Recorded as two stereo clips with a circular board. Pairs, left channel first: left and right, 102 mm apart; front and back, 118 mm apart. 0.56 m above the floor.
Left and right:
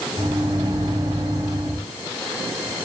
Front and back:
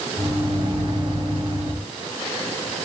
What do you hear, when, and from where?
0.2 s a microwave: 135° right, 2.5 m